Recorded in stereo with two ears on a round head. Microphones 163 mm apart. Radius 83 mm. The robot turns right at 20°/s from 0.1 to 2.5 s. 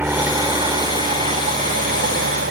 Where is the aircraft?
170° right; by 2.5 s 120° right.